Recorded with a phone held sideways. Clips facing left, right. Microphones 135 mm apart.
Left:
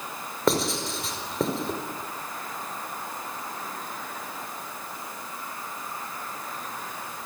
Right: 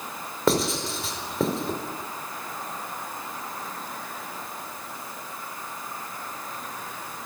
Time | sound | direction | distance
0.5 | writing | centre (ahead or behind) | 4.5 m